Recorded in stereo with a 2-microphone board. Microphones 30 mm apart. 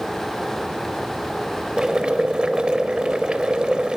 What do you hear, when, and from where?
1.8 s boiling: 30° right (ahead or behind), 0.6 m